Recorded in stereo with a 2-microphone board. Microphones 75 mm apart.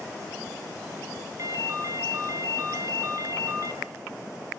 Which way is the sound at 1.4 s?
50° right (ahead or behind).